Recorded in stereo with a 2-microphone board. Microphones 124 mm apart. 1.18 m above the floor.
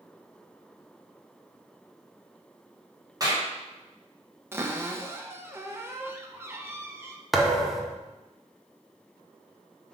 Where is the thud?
Centre (ahead or behind), 0.7 m.